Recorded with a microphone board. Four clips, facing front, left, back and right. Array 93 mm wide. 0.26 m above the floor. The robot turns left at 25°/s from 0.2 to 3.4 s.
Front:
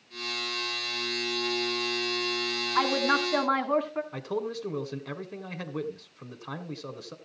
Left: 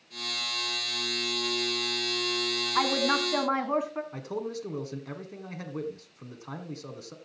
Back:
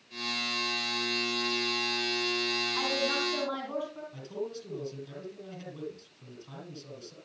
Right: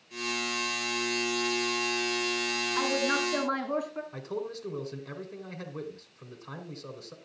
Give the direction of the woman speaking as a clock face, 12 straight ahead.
10 o'clock.